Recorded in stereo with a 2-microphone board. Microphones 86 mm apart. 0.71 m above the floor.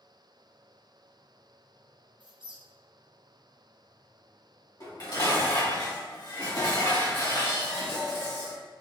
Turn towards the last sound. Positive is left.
turn(degrees=50)  # may be behind; listen again after turning